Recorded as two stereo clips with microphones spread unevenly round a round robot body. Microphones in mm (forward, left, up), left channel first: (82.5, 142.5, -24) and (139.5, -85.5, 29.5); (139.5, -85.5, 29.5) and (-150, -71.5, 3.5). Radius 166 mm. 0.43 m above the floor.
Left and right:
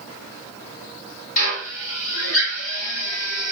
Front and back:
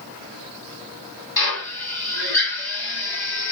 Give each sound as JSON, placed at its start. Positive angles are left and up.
{"t": 1.4, "sound": "a drill", "azimuth_deg": 80, "distance_m": 2.5}